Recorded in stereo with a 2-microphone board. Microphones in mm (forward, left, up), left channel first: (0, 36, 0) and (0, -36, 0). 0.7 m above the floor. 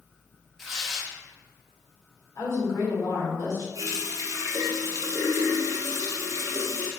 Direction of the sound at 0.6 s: Centre (ahead or behind).